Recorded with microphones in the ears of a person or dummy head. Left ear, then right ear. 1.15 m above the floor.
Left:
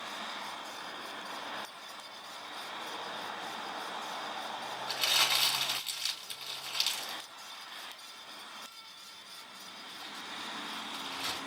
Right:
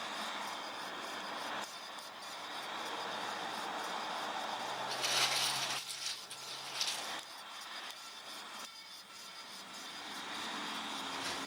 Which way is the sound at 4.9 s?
55° left (ahead or behind).